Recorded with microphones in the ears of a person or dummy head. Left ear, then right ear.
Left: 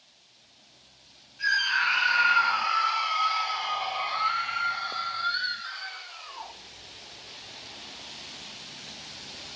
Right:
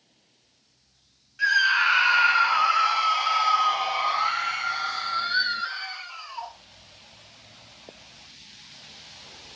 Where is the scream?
40° right (ahead or behind), 4.5 m; by 6.5 s 80° right, 4 m.